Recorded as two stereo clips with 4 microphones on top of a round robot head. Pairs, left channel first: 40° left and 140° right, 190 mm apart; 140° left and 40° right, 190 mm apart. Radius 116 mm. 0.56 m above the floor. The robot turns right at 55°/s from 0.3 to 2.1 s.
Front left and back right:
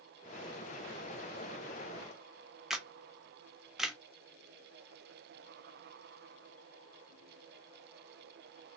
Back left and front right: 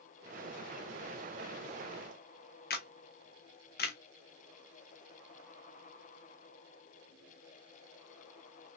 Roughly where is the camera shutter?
Behind left.